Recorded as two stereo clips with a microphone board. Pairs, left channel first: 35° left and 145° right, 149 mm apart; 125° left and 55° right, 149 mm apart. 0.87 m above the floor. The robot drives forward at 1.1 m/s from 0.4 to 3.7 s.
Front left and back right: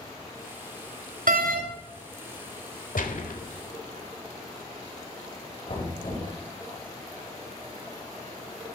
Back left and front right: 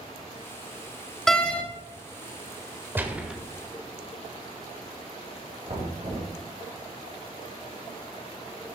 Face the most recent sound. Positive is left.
turn(degrees=-10)